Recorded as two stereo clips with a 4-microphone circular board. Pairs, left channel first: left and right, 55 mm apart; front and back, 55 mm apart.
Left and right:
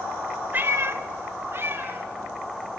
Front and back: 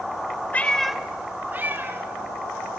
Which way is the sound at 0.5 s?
50° right.